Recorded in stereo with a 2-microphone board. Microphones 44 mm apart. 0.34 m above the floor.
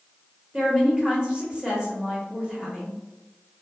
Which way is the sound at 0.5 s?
20° right (ahead or behind).